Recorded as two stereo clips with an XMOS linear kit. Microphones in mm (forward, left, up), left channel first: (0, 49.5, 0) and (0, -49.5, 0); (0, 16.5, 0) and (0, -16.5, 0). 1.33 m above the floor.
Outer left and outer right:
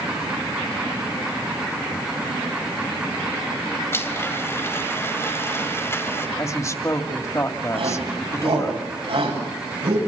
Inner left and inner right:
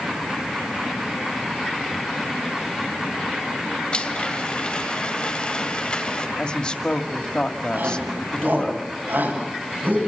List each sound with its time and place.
3.9 s a blender: 30° left (ahead or behind), 2.5 m
6.4 s a woman speaking: 30° left (ahead or behind), 2.5 m
7.7 s a shout: 80° right, 9 m